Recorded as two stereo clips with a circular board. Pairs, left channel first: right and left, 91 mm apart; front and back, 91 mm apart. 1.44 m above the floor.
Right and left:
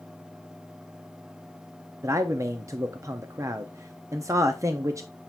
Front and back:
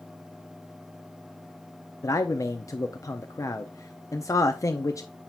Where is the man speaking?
45° left, 0.6 m.